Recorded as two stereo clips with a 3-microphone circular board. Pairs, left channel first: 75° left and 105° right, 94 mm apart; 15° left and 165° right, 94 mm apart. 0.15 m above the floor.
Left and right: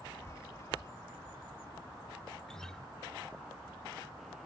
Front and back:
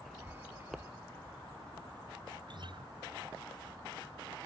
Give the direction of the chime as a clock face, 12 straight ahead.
8 o'clock.